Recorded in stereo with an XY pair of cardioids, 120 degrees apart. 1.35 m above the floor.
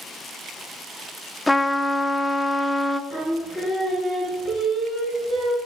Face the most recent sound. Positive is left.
turn(degrees=0)